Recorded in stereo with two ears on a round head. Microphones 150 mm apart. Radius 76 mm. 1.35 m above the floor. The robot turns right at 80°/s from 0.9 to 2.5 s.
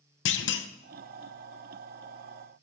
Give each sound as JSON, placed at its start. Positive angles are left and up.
{"t": 0.2, "sound": "a clunk", "side_deg": 75, "distance_m": 0.6}